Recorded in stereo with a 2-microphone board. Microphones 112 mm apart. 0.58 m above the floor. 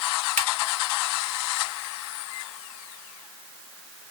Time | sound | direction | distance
0.4 | a finger snap | 10° left (ahead or behind) | 0.6 m